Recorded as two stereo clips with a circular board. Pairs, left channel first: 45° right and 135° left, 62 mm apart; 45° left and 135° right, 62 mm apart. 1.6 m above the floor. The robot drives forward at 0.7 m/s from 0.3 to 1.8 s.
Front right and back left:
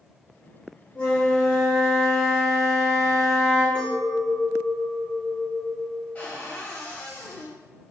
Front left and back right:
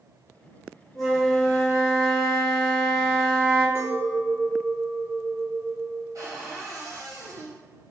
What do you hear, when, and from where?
0.9 s a flute: 20° right, 1.2 m; by 3.6 s 105° right, 1.1 m
3.8 s a clink: 120° right, 1.5 m
6.2 s a cupboard door: 110° right, 0.8 m